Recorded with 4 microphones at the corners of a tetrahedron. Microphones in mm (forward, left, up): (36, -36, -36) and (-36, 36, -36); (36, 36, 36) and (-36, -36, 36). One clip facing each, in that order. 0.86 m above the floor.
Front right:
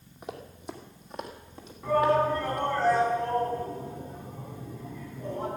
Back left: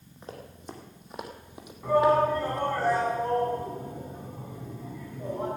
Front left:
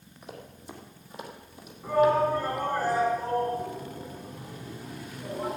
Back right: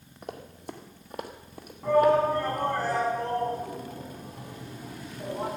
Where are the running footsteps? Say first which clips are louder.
Front right 2 dB, back right 4 dB; 120° right, 2.0 m; by 2.6 s 170° right, 1.9 m.